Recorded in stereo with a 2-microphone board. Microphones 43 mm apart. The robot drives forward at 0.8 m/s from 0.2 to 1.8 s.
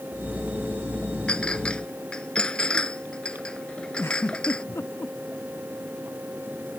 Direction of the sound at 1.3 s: 25° left (ahead or behind).